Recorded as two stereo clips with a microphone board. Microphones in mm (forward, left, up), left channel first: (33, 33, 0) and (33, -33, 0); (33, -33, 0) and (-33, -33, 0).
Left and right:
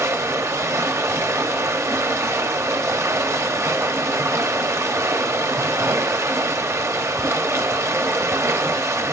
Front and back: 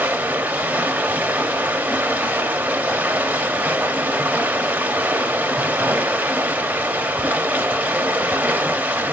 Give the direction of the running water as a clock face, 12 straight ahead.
4 o'clock.